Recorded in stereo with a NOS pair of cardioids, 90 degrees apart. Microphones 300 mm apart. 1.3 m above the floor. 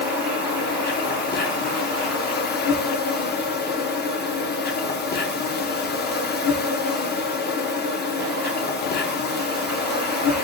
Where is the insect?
35° left, 0.8 m.